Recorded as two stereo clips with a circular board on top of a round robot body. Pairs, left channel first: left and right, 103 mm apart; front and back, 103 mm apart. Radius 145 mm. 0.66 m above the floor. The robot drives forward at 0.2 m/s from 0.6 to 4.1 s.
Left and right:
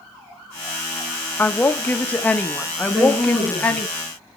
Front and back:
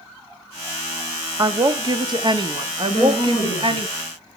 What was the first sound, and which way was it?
A woman speaking, 155° left.